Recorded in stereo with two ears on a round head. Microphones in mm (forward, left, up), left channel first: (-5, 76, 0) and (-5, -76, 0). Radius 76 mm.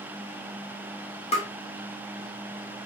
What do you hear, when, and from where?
1.3 s tapping: 35° left (ahead or behind), 1.3 m